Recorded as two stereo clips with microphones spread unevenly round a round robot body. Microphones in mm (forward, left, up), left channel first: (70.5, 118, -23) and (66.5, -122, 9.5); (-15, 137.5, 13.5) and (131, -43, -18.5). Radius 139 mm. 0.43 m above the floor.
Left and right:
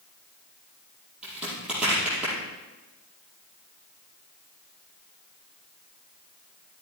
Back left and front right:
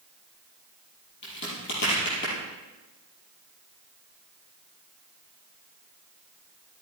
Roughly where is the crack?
Behind.